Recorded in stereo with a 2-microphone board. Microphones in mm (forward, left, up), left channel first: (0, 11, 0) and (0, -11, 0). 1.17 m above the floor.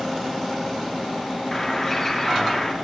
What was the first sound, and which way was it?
A bird, 30° left (ahead or behind).